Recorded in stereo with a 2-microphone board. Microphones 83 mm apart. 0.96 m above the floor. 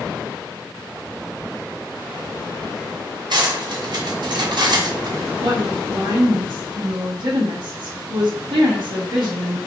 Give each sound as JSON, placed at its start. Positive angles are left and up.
{"t": 3.3, "sound": "cutlery clinking", "side_deg": -60, "distance_m": 1.0}
{"t": 5.4, "sound": "a woman speaking", "side_deg": -70, "distance_m": 1.3}